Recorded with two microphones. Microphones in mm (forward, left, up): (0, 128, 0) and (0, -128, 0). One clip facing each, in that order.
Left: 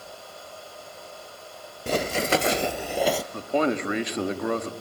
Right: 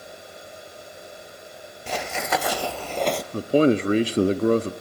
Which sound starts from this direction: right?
A man speaking, at 3.3 s.